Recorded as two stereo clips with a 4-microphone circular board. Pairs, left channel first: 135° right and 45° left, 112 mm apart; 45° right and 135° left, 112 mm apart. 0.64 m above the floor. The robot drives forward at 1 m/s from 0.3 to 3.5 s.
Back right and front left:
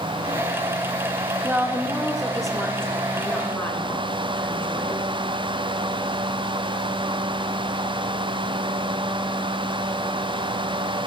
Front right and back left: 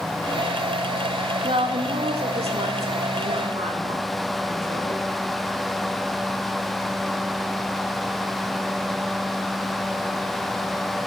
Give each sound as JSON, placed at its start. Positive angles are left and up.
{"t": 1.4, "sound": "a woman speaking", "azimuth_deg": 105, "distance_m": 1.7}